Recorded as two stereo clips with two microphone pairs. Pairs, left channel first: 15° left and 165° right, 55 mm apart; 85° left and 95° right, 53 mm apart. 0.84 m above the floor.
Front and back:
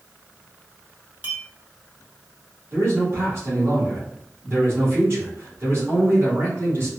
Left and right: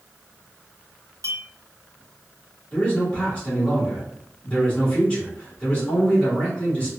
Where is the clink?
105° right, 1.0 m.